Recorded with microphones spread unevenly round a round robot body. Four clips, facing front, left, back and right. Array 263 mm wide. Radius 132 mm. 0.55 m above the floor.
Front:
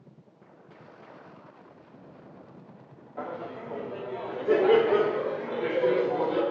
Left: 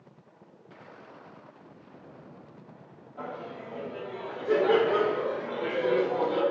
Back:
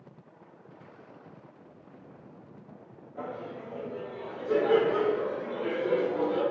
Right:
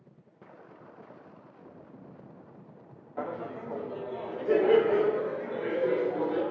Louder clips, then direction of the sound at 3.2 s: Right 3 dB, front 2 dB; 95° right.